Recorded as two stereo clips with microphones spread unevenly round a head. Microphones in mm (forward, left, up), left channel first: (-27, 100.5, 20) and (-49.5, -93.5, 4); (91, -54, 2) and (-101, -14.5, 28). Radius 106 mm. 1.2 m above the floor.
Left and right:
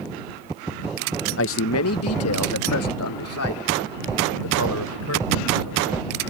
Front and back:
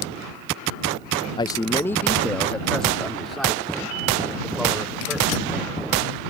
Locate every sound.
1.4 s a man speaking: 55° left; by 6.0 s 85° left